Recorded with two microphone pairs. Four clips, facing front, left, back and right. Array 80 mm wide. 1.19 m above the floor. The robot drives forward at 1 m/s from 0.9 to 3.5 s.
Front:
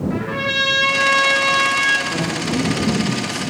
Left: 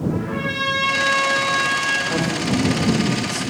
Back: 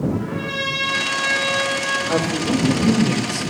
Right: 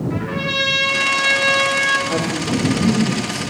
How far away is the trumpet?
About 6 m.